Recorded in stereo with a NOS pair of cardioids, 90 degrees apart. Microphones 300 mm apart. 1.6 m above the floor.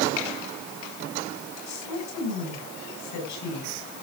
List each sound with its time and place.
1.7 s a woman speaking: 70° left, 7.5 m